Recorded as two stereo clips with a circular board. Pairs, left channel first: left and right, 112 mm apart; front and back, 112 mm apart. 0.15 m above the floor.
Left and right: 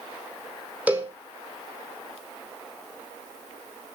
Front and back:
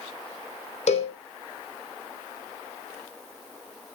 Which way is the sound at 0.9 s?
15° right.